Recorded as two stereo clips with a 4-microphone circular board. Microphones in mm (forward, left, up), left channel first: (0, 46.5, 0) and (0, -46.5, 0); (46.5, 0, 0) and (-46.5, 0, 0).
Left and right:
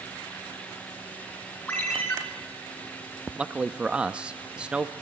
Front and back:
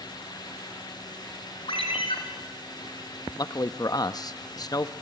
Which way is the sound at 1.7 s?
15° left.